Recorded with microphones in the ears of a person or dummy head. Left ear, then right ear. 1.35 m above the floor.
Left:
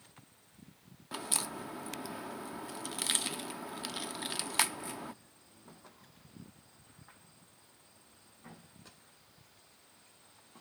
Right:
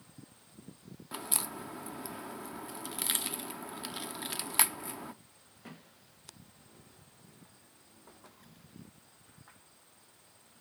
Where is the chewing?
I don't hear chewing.